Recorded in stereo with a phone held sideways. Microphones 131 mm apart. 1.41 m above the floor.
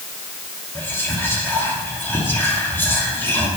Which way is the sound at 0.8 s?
15° left (ahead or behind).